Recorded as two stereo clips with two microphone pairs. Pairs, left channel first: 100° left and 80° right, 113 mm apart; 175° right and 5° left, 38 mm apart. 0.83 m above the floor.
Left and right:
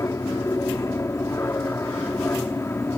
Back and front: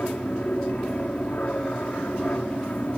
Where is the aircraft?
155° left; by 3.0 s 165° left.